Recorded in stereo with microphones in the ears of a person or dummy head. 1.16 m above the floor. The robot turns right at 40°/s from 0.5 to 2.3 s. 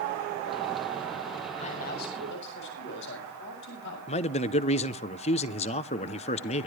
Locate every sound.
1.6 s a man speaking: 45° left (ahead or behind), 6.5 m; by 4.0 s 70° left (ahead or behind), 6.5 m
4.1 s a man speaking: 30° left (ahead or behind), 0.5 m